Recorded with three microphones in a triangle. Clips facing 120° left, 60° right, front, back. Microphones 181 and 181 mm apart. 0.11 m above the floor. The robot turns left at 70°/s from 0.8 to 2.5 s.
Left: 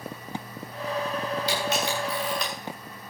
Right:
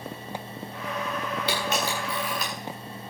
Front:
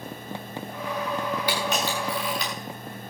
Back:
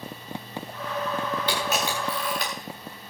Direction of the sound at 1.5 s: 80° right.